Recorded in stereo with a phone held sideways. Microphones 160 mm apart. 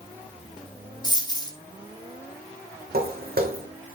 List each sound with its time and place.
1.0 s a dropped coin: 25° left (ahead or behind), 1.7 m
2.9 s footsteps: 75° right (ahead or behind), 3 m